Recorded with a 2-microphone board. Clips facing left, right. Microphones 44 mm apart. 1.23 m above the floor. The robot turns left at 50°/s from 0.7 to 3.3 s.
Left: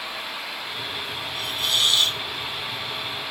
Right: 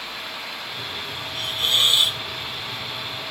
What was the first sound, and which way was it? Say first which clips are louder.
A hiss: right 3 dB; 130° right.